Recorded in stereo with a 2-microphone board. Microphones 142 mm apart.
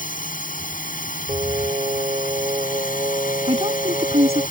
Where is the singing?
40° right (ahead or behind).